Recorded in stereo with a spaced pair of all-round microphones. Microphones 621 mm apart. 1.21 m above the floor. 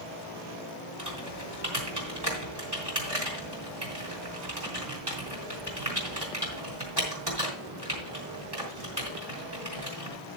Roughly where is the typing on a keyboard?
Right.